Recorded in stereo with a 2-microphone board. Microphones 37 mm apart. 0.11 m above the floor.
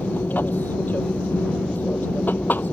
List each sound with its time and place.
0.0 s an aircraft: 60° left (ahead or behind)